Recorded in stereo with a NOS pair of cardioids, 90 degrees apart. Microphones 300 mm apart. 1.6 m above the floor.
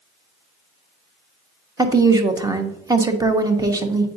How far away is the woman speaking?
About 1.0 m.